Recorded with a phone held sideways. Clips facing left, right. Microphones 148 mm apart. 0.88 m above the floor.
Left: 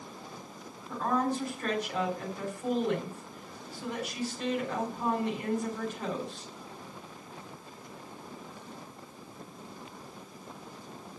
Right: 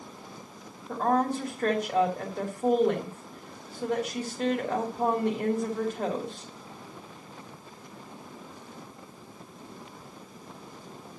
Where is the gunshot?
I don't hear a gunshot.